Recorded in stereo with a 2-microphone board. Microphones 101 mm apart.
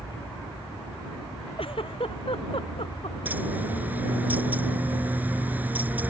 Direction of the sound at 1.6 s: 65° left (ahead or behind).